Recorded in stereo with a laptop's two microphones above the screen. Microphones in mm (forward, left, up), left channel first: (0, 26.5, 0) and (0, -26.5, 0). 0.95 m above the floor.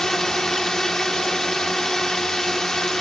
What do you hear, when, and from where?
0.0 s a drone: 10° left (ahead or behind)